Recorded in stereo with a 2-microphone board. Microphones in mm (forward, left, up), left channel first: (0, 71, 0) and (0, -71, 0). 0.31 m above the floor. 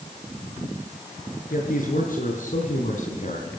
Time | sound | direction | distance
1.5 | a man speaking | 75° left (ahead or behind) | 5 m